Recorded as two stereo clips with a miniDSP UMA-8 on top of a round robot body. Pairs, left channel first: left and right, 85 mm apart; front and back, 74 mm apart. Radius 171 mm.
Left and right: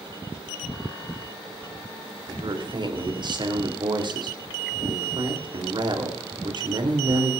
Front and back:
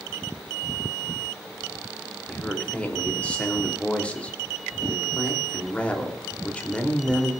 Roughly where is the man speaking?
Right.